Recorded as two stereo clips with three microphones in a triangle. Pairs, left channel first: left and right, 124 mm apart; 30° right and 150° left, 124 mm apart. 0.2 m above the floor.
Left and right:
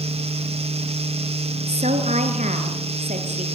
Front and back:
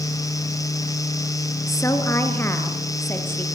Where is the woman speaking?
95° right, 2.5 m; by 3.5 s 100° right, 4.5 m.